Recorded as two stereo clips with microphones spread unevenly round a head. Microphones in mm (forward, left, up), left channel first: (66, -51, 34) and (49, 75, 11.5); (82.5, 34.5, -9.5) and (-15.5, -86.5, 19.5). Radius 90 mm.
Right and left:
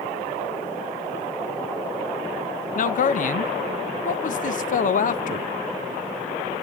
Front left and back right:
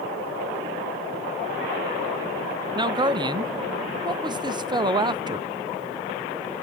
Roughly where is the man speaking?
Ahead right.